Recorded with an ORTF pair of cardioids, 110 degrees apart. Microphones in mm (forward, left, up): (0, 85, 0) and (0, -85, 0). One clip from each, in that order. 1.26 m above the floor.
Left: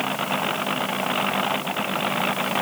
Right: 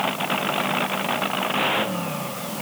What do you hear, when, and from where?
Only background noise.